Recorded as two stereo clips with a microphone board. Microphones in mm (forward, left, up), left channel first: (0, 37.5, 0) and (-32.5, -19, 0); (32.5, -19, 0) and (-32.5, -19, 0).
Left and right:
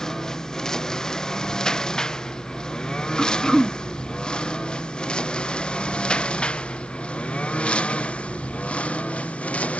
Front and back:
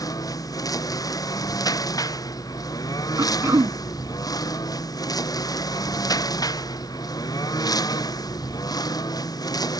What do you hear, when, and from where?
0.0 s a lawn mower: 20° right; by 9.8 s 10° right
3.2 s throat clearing: 145° left